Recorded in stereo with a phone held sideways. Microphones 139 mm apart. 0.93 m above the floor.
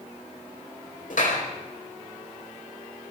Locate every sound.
1.1 s a clap: 70° left (ahead or behind), 4 m